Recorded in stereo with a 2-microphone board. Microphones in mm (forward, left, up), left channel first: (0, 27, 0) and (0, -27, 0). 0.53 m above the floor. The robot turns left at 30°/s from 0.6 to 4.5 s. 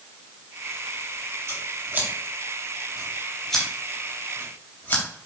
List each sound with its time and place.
1.5 s scissors: 50° right (ahead or behind), 3 m; by 5.0 s 30° left (ahead or behind), 3 m